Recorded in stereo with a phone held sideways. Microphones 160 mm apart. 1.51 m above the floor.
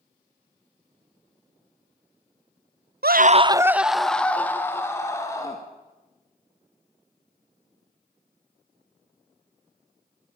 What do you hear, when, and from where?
3.0 s a scream: 75° right (ahead or behind), 0.5 m; by 5.6 s 20° left (ahead or behind), 2.5 m